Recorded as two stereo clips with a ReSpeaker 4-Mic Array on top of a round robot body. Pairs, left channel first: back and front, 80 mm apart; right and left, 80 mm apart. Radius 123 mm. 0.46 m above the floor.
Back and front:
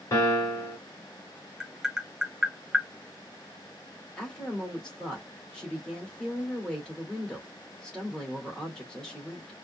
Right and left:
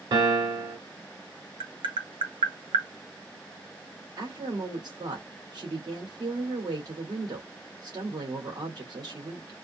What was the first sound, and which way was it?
A piano, 125° left.